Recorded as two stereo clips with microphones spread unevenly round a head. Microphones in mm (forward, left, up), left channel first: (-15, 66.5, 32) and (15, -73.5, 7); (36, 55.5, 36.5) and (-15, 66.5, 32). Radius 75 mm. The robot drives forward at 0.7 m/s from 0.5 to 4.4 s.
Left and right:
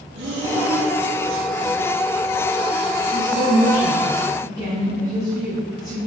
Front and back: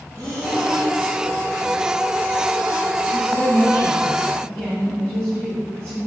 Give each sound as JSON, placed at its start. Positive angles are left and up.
{"t": 0.1, "sound": "breathing", "azimuth_deg": -75, "distance_m": 2.0}
{"t": 3.1, "sound": "a woman speaking", "azimuth_deg": -140, "distance_m": 2.5}